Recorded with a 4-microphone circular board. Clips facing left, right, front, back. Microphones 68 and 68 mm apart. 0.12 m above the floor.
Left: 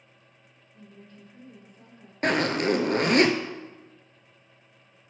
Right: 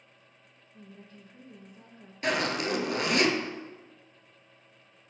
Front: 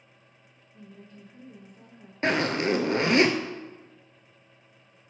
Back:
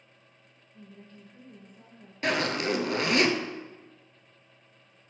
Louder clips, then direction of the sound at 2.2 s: Left 5 dB, front 3 dB; 55° left.